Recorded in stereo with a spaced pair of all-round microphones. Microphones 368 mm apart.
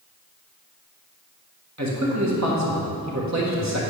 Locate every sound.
1.8 s a man speaking: 45° right (ahead or behind), 1.9 m